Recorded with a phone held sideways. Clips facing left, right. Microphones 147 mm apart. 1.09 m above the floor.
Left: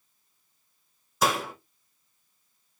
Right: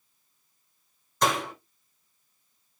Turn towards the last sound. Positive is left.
turn(degrees=5)  # may be behind; listen again after turning